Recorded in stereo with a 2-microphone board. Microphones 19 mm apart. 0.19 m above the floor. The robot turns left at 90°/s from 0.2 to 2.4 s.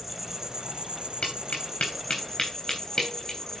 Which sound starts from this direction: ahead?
An insect, at 0.0 s.